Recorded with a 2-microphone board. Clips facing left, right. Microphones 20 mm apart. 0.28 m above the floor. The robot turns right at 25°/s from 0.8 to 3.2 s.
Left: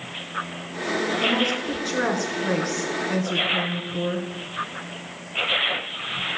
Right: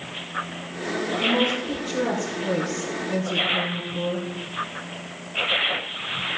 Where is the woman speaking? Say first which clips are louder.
Right 3 dB; 55° left, 4 m; by 4.3 s 105° left, 4 m.